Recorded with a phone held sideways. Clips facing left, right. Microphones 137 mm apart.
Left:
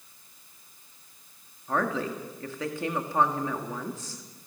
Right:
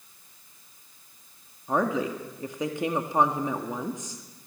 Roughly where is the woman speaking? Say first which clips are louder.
Right 3 dB; centre.